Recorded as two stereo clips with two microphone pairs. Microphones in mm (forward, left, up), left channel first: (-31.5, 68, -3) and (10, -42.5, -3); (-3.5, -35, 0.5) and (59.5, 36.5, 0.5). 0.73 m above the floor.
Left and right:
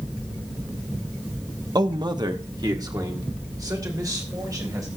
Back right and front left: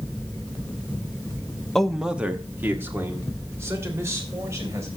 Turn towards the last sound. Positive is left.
turn(degrees=-10)